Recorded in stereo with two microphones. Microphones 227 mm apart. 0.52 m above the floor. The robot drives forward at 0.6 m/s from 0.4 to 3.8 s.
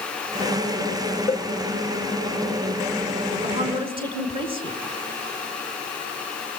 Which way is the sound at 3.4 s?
25° right (ahead or behind).